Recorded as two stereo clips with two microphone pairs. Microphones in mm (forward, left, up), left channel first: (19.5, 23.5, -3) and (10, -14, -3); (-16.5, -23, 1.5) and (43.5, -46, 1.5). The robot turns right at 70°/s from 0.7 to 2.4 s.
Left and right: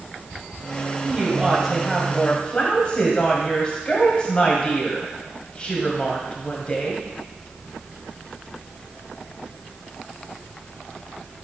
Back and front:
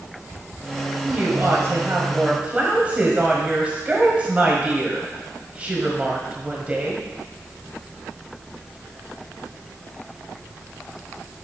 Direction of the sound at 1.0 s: 65° right.